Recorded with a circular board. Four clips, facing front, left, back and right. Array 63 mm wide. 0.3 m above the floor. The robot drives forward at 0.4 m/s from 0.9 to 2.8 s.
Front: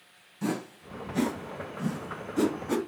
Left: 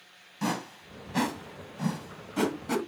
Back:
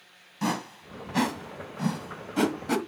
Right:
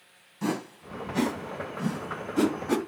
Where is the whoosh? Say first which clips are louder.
Right 1 dB, back 2 dB; 145° left, 1.5 m; by 2.8 s 160° left, 2 m.